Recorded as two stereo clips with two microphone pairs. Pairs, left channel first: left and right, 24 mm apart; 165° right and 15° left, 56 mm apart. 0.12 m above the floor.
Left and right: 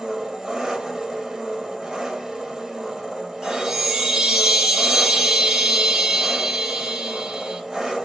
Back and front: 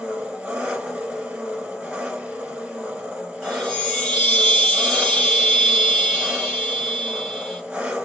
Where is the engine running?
40° right, 1.5 m.